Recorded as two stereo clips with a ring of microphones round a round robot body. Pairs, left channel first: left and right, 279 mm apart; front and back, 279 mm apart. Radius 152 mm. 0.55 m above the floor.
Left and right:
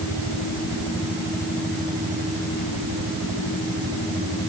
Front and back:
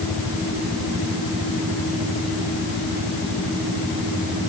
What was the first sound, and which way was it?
Only background noise.